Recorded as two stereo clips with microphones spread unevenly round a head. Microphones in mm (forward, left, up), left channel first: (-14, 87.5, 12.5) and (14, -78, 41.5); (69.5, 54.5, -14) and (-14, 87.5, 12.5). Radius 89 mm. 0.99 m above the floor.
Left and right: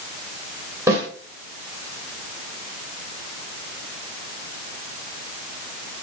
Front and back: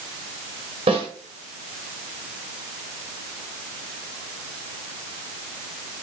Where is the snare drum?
155° right, 1.7 m.